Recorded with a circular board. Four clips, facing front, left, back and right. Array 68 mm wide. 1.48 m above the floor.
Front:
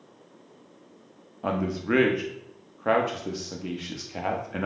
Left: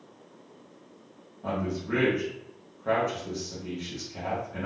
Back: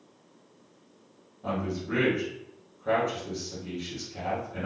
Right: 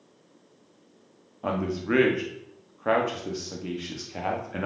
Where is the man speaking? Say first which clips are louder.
Right 3 dB, front 4 dB; 35° right, 0.6 m.